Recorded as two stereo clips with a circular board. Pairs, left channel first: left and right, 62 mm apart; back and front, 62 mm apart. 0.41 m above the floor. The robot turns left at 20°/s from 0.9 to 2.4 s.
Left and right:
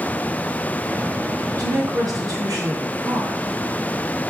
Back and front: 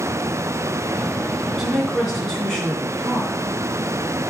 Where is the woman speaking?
85° right, 3 m; by 3.4 s 105° right, 3 m.